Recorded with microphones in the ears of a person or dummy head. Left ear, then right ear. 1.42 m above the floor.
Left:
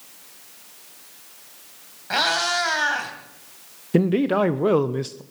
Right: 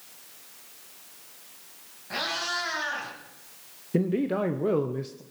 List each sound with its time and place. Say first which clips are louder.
2.1 s a cat meowing: left 9 dB; 40° left (ahead or behind), 3 m
3.9 s a man speaking: left 7 dB; 35° left (ahead or behind), 0.7 m